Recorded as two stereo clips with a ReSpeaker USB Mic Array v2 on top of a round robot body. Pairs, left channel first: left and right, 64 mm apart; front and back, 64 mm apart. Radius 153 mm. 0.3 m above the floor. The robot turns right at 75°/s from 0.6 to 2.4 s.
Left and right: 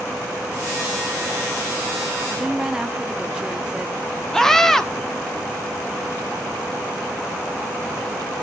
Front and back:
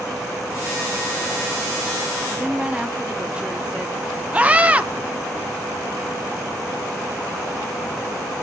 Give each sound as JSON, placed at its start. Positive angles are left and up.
{"t": 2.3, "sound": "a woman speaking", "azimuth_deg": -155, "distance_m": 0.9}
{"t": 4.3, "sound": "a scream", "azimuth_deg": 165, "distance_m": 1.5}